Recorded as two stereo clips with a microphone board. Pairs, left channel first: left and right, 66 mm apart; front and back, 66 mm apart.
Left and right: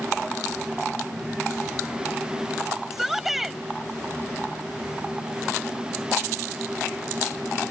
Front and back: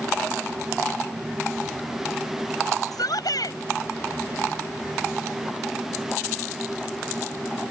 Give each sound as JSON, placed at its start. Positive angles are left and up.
{"t": 2.9, "sound": "a shout", "azimuth_deg": -5}